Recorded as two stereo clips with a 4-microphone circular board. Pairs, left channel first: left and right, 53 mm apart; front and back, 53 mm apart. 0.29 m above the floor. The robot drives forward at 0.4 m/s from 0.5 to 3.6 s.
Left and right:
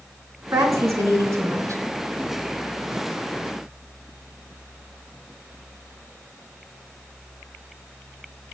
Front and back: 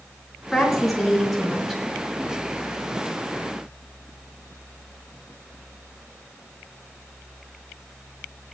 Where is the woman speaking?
85° right, 3.5 m; by 1.8 s 90° right, 3.5 m.